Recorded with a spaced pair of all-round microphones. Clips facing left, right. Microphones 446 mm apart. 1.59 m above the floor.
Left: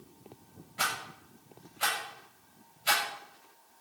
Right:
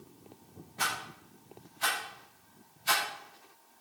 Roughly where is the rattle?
Left.